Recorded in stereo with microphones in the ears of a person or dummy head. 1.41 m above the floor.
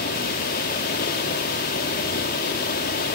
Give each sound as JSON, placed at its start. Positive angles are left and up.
{"t": 0.0, "sound": "running water", "side_deg": 50, "distance_m": 2.0}